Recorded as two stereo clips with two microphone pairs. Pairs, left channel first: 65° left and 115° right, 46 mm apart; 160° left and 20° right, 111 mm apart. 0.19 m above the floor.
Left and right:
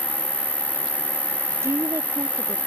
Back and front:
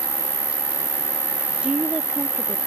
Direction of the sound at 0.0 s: 35° left.